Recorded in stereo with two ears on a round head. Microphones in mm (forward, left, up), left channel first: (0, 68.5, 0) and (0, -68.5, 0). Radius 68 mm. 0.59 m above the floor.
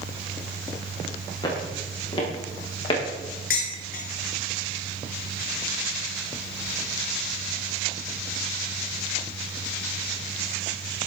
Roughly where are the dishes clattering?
Left.